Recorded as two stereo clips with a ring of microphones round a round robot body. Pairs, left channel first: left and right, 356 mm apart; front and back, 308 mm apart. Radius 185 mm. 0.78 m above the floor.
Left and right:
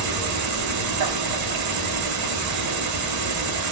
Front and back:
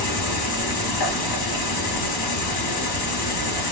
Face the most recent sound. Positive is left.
turn(degrees=-45)